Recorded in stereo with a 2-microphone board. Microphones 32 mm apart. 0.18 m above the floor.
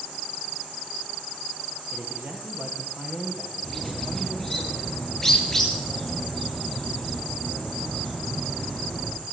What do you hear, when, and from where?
1.9 s a man speaking: 65° right (ahead or behind), 3.5 m; by 4.6 s 80° right, 6.5 m
3.6 s a bird: 10° left (ahead or behind), 9 m